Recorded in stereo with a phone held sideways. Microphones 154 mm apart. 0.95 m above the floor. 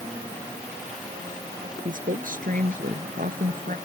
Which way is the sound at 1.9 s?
60° right (ahead or behind).